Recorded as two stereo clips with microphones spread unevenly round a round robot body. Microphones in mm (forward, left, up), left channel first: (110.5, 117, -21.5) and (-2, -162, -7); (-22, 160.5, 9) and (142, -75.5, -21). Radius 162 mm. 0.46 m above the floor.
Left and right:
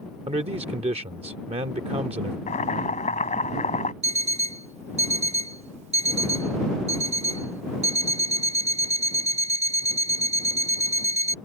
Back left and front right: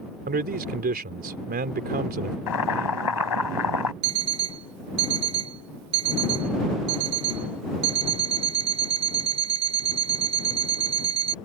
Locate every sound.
0.3 s a man speaking: 50° right
2.5 s boiling: 135° left
4.0 s an alarm clock: 45° right